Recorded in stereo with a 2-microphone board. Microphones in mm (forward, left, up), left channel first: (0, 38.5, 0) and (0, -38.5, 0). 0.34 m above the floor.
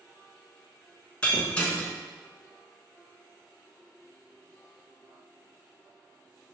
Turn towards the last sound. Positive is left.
turn(degrees=15)  # may be behind; listen again after turning